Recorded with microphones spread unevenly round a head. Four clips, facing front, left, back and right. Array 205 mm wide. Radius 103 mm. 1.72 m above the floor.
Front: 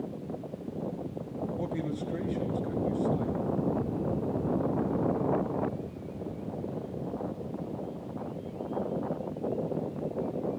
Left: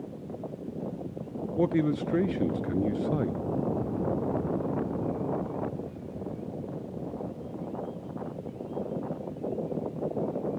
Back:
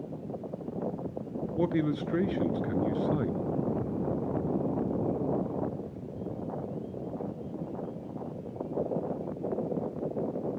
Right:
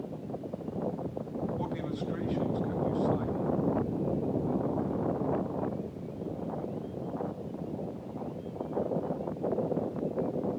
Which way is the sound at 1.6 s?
115° left.